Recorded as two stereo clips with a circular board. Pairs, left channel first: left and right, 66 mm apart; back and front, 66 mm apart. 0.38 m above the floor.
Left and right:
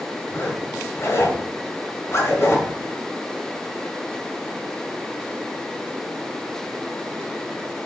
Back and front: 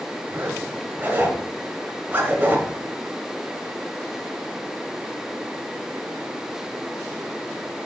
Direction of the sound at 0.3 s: 55° left.